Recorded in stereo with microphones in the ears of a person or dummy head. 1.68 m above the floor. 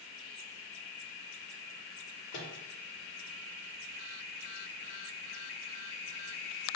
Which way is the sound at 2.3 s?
40° left (ahead or behind).